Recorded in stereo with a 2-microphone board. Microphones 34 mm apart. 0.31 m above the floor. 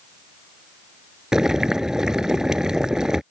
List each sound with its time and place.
1.3 s boiling: 20° right (ahead or behind)